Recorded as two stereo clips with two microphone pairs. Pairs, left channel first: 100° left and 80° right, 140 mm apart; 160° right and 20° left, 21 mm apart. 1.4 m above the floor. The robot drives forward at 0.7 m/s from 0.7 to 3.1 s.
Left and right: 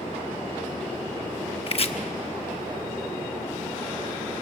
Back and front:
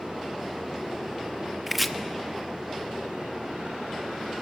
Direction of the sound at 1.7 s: 95° left.